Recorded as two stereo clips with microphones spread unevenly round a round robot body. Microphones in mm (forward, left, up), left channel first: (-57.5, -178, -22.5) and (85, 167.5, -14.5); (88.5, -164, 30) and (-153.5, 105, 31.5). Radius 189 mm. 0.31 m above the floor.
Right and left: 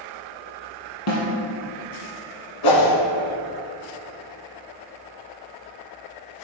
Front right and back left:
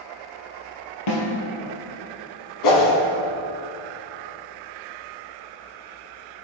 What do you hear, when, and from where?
1.1 s a snare drum: 60° right, 3.5 m
2.6 s a whoosh: 80° right, 1.7 m